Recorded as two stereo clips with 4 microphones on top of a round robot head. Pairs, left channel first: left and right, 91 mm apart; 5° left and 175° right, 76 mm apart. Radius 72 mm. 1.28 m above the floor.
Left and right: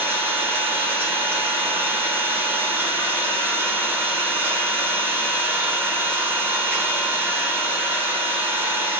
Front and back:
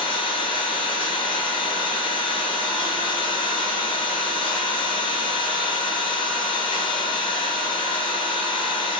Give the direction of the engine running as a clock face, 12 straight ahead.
1 o'clock.